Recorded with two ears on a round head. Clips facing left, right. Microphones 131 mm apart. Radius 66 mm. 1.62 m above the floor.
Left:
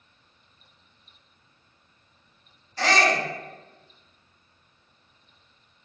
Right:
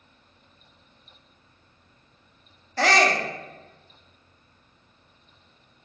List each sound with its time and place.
2.8 s a shout: 50° right (ahead or behind), 0.6 m